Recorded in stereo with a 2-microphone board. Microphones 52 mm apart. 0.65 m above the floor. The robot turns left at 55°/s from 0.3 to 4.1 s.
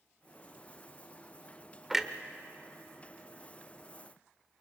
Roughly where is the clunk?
Centre.